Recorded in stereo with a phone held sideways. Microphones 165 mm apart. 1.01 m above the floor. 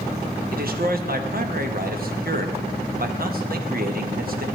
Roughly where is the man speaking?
Right.